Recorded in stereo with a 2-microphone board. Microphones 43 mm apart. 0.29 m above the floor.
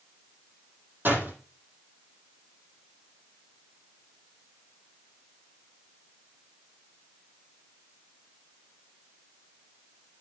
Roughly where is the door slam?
Right.